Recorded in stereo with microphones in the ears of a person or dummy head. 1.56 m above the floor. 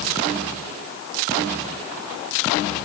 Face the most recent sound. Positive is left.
No sound to turn to.